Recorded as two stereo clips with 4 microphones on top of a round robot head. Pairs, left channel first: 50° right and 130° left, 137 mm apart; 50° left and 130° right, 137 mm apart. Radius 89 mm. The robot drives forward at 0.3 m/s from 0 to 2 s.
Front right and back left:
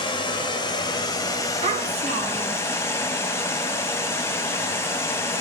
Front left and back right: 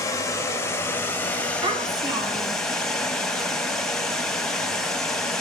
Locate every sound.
0.0 s running water: 10° right, 1.1 m; by 5.4 s 30° right, 0.8 m
1.6 s a child speaking: 170° left, 1.1 m